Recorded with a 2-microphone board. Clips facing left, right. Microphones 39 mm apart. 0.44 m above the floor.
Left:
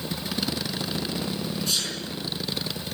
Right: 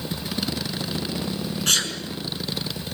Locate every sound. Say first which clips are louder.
1.7 s a sneeze: right 8 dB; 60° right (ahead or behind), 6.5 m